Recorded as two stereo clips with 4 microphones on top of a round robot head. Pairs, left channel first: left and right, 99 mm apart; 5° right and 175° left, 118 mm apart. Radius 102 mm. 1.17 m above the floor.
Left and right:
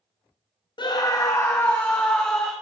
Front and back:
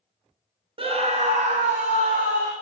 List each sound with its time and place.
0.8 s a scream: 130° left, 1.1 m; by 2.5 s 170° left, 2.5 m